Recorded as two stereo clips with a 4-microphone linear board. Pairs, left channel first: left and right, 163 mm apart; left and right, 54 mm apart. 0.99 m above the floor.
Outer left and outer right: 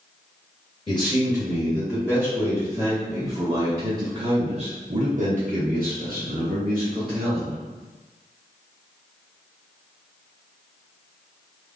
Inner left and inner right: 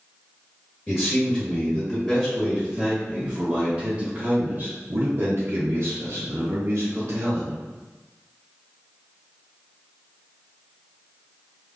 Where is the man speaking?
30° left (ahead or behind), 1.9 m; by 7.5 s 60° right (ahead or behind), 1.9 m.